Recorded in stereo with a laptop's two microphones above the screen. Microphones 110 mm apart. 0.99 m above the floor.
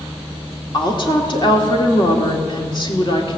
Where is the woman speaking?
45° left (ahead or behind), 2 m.